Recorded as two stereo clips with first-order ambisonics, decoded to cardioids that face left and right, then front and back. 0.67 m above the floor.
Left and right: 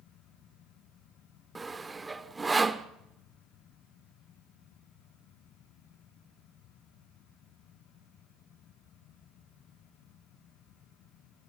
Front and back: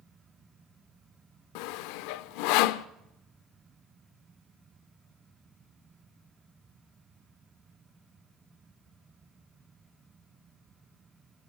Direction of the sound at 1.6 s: 10° right.